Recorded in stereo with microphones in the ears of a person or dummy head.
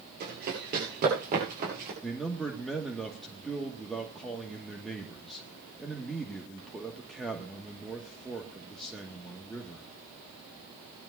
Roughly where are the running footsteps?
Right.